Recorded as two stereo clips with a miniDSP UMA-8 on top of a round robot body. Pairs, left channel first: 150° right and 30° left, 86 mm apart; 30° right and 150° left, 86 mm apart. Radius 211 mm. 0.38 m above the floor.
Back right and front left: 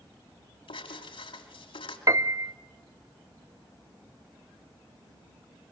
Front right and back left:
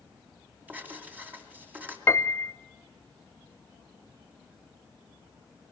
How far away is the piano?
About 0.9 m.